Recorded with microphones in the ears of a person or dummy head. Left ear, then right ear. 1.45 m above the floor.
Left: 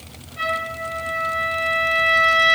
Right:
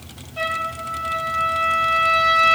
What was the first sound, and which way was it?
A trumpet, 15° right (ahead or behind).